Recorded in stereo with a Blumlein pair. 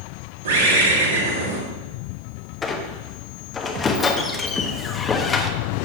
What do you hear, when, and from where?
0.5 s a bird: 65° right, 2.5 m
2.6 s a squeak: 15° left, 1.1 m